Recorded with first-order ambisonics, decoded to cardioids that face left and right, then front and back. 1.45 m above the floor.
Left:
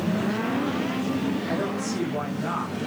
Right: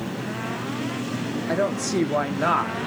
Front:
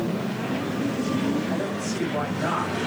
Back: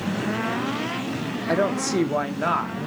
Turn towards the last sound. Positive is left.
turn(degrees=-115)